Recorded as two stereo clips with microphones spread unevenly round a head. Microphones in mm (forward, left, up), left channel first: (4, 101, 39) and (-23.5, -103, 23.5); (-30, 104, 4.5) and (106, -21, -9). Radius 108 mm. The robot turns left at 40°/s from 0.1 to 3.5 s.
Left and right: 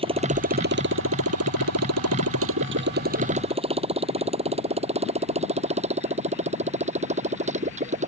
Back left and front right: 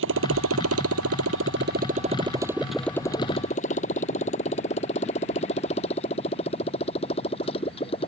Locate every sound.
0.0 s a motorcycle: 30° right; by 8.1 s 155° right